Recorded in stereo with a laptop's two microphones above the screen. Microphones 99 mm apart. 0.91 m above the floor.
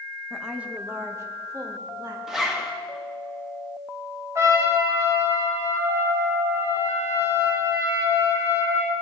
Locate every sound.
0.3 s a woman speaking: centre (ahead or behind), 0.8 m; by 2.2 s 45° right (ahead or behind), 1.9 m
2.3 s a zipper: 5° right (ahead or behind), 1.0 m
4.3 s a trumpet: 35° right (ahead or behind), 2.0 m